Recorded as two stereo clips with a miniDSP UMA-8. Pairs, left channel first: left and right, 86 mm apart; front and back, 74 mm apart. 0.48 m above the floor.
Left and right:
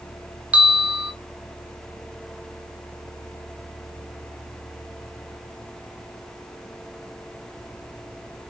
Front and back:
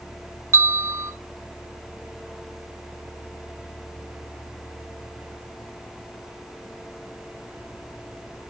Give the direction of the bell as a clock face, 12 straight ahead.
5 o'clock.